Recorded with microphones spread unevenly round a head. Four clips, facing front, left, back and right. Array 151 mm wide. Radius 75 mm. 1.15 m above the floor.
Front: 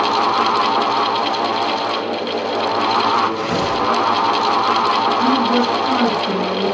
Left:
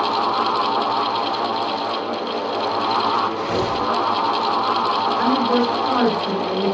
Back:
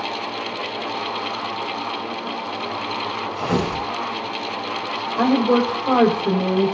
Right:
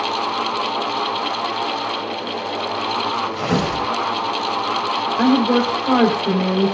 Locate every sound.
3.3 s tearing paper: 120° right, 5 m
5.2 s a woman speaking: 155° right, 4.5 m